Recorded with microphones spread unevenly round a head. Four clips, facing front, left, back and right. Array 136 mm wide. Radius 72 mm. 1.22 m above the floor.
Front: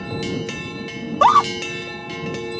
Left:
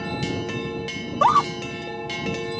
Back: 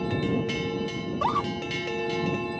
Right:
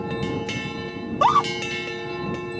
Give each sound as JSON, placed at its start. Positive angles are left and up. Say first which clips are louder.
{"t": 1.0, "sound": "a scream", "louder": "even, front 15 dB", "azimuth_deg": -5}